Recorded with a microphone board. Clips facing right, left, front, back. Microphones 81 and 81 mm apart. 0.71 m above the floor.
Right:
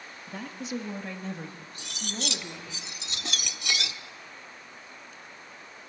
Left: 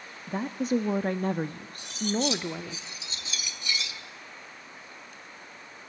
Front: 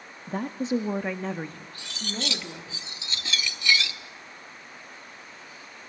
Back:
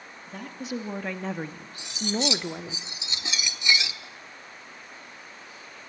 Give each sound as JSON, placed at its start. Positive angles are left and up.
{"t": 0.3, "sound": "a woman speaking", "azimuth_deg": 40, "distance_m": 0.9}
{"t": 1.8, "sound": "cutlery clinking", "azimuth_deg": -110, "distance_m": 1.0}